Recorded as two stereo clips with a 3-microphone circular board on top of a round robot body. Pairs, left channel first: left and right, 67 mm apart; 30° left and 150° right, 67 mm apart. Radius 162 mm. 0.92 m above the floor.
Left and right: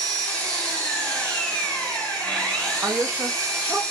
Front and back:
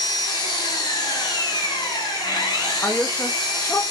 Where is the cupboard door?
I don't hear a cupboard door.